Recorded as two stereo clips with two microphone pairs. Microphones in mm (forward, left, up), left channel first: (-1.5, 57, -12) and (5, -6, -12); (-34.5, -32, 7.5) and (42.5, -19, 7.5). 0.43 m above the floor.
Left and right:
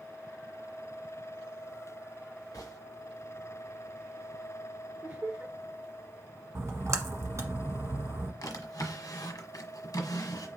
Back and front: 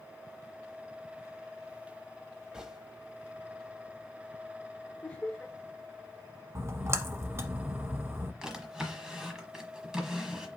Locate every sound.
2.5 s a gunshot: 90° left, 1.0 m
5.0 s laughter: 115° right, 0.9 m
6.5 s a splash: 45° right, 1.1 m
8.4 s a drawer: 90° left, 1.2 m